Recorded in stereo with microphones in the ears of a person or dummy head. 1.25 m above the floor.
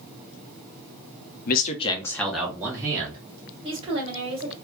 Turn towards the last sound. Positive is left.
turn(degrees=-25)  # may be behind; listen again after turning